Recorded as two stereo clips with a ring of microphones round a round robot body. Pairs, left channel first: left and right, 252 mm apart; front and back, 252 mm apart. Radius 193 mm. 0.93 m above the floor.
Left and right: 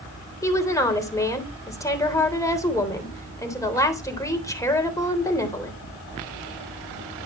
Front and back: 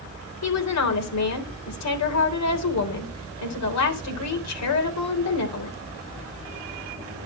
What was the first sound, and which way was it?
A woman speaking, 10° left.